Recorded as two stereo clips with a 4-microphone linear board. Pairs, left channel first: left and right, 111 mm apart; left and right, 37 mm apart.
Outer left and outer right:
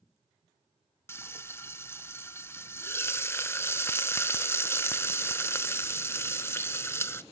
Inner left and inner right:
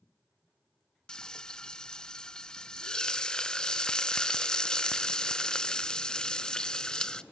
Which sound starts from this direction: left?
Frying, at 1.1 s.